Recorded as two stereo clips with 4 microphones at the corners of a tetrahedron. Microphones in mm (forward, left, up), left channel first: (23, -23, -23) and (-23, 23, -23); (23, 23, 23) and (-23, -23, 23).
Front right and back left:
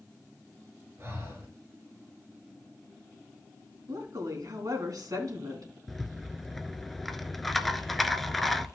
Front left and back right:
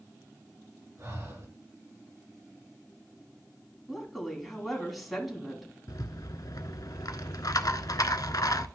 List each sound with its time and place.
1.0 s breathing: 175° right, 3 m
3.9 s a woman speaking: 135° left, 3 m
5.9 s a rattle: 45° left, 0.6 m